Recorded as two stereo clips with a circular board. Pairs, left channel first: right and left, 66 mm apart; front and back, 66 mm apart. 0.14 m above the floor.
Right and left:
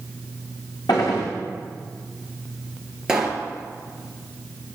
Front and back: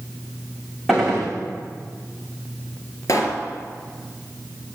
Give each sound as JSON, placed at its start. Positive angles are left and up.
{"t": 0.9, "sound": "a gunshot", "azimuth_deg": -90, "distance_m": 5.5}
{"t": 3.1, "sound": "a pop", "azimuth_deg": 10, "distance_m": 3.0}